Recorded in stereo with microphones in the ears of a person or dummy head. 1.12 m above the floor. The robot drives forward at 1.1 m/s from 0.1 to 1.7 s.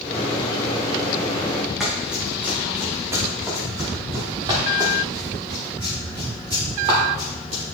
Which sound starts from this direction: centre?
Running footsteps, at 1.8 s.